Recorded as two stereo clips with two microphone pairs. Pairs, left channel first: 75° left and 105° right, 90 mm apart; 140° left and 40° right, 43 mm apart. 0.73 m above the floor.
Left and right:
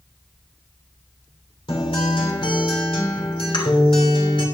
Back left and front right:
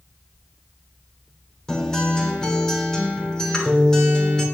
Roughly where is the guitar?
Ahead left.